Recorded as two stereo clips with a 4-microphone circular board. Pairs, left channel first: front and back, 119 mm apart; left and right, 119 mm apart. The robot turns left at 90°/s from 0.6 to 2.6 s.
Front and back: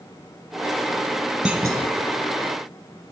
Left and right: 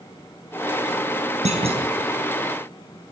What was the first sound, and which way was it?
A clunk, 95° right.